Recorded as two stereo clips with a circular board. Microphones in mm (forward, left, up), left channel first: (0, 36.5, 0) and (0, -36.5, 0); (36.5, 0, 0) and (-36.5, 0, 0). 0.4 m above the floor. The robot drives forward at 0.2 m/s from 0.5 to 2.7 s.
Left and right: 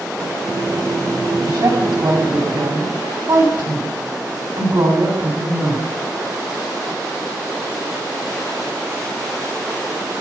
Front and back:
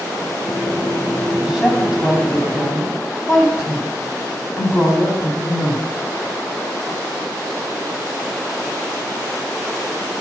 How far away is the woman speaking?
About 3 m.